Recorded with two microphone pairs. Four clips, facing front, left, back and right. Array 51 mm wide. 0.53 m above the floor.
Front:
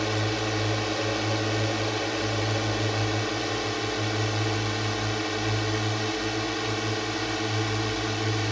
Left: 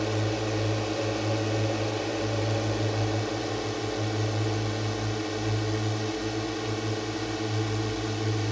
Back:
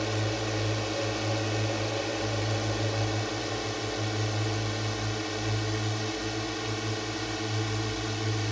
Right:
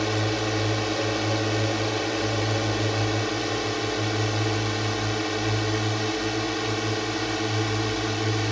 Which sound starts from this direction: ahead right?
A drone, at 0.0 s.